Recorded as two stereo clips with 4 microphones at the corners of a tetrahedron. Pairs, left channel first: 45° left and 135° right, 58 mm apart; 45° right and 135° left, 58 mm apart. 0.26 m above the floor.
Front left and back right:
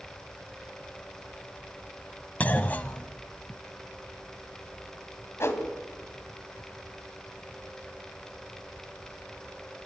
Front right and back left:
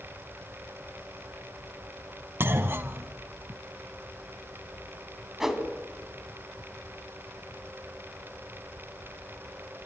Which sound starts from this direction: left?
A clunk, at 2.4 s.